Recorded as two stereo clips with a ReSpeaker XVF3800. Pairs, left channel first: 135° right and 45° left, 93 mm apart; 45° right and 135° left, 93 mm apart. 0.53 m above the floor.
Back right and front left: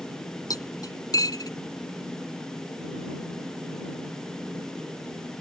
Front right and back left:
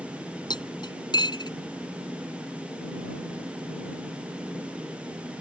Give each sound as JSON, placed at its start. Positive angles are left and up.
{"t": 0.5, "sound": "cutlery clinking", "azimuth_deg": -85}